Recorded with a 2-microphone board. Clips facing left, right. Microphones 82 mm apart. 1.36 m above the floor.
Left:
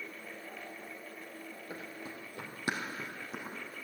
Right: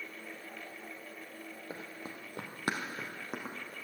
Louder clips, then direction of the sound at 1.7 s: Even; 30° right (ahead or behind).